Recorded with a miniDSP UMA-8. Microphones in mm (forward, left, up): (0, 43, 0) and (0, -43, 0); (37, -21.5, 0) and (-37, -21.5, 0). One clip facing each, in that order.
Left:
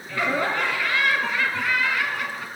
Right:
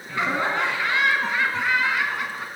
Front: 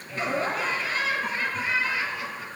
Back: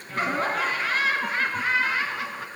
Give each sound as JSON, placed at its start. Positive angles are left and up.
{"t": 0.1, "sound": "laughter", "azimuth_deg": -150, "distance_m": 2.5}